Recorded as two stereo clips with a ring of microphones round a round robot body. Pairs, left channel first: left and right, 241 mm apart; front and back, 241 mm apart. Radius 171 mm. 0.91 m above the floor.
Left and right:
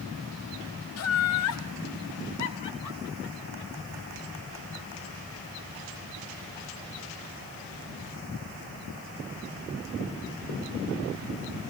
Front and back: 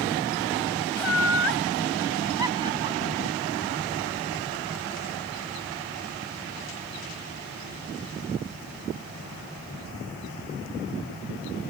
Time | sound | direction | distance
1.0 | laughter | 75° left | 0.8 m